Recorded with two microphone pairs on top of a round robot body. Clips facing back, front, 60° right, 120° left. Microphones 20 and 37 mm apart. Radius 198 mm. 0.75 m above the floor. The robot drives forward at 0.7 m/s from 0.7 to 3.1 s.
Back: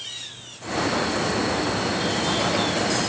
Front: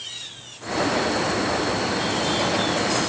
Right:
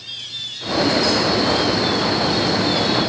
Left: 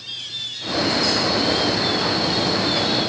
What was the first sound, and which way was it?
Only background noise.